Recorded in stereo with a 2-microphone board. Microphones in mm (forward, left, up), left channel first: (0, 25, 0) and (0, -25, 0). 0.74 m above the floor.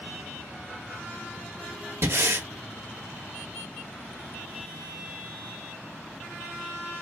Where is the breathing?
70° right (ahead or behind), 1.2 m.